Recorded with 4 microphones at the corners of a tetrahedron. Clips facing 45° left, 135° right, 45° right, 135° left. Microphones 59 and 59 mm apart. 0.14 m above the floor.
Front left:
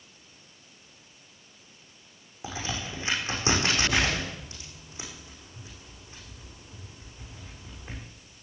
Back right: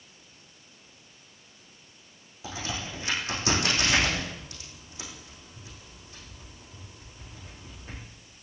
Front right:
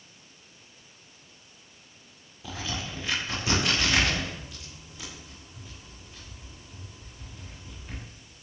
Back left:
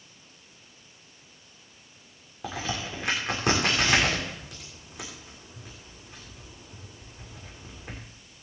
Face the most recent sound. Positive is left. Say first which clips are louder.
# front left 1 dB, back left 3 dB
turn(degrees=110)